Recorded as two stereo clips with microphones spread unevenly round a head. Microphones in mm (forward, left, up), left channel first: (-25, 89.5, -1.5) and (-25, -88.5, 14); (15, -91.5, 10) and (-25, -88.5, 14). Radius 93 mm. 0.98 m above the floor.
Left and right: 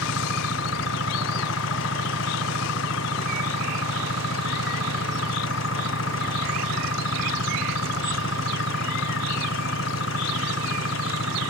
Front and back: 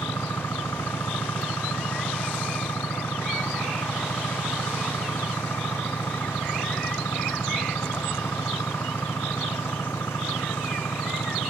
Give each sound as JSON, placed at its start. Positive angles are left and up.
{"t": 0.0, "sound": "an engine running", "azimuth_deg": 60}